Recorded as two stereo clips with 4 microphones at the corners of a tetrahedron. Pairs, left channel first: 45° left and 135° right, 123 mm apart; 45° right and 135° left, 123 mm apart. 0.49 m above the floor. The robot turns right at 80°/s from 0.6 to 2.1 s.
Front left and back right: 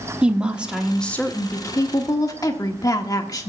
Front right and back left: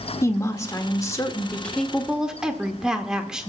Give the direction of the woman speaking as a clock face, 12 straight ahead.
2 o'clock.